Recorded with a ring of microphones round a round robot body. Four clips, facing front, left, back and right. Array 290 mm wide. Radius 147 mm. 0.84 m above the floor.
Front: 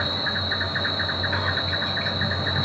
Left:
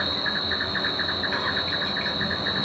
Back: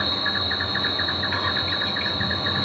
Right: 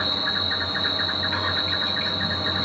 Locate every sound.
0.0 s an insect: 170° right, 2.5 m